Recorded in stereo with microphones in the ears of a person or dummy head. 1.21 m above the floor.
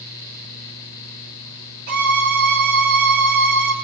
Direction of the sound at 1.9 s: 55° right (ahead or behind).